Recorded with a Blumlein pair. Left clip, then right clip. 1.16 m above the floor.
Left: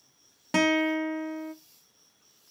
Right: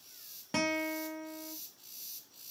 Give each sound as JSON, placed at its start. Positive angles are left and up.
{"t": 0.5, "sound": "a guitar", "azimuth_deg": 20, "distance_m": 0.8}